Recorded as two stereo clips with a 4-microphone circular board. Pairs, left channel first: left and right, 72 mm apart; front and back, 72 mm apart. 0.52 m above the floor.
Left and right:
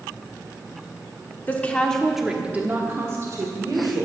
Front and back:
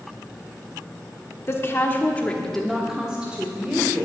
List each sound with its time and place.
1.5 s a woman speaking: 35° left, 1.5 m; by 4.0 s 115° right, 2.5 m